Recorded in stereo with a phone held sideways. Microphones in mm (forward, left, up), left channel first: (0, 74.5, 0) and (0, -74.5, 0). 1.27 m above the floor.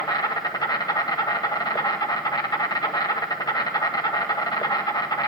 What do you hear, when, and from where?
0.0 s an insect: 25° left (ahead or behind), 1.1 m